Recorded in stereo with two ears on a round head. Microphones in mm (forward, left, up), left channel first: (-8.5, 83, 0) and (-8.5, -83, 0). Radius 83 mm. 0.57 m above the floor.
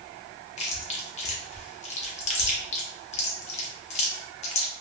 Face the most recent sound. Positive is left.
turn(degrees=35)  # may be behind; listen again after turning